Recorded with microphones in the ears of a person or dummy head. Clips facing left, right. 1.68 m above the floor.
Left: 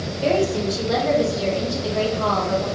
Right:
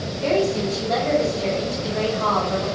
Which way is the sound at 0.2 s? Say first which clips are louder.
Left 1 dB; 70° left (ahead or behind).